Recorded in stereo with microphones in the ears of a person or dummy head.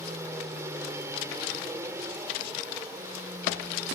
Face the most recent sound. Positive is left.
turn(degrees=-15)  # may be behind; listen again after turning